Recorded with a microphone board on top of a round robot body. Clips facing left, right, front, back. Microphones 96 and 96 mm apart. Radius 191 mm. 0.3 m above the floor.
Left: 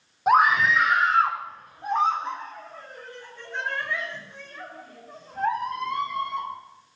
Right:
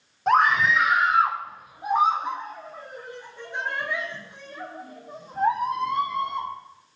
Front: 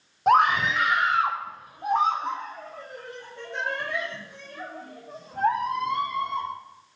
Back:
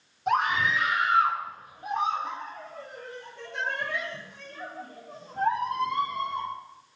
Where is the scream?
10° left, 1.9 m; by 6.5 s 20° right, 10 m.